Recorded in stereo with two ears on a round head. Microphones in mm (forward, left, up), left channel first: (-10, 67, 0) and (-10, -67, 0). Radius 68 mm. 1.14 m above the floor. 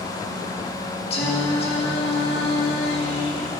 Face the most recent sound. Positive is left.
turn(degrees=40)  # may be behind; listen again after turning